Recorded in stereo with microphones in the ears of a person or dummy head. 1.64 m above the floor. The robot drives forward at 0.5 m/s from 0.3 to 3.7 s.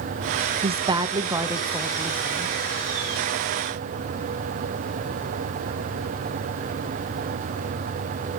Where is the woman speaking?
30° right (ahead or behind), 0.5 m; by 2.5 s 10° right (ahead or behind), 1.4 m.